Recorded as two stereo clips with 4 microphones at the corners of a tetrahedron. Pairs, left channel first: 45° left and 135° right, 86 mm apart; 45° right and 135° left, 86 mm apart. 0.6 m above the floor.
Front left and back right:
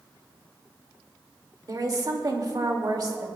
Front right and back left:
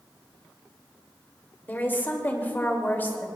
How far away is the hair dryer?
I don't hear a hair dryer.